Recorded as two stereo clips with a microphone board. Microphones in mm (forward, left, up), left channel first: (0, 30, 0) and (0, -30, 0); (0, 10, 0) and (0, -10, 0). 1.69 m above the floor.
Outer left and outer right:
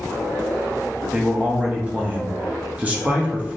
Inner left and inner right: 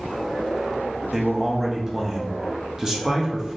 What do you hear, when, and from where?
1.1 s a man speaking: 25° right (ahead or behind), 0.6 m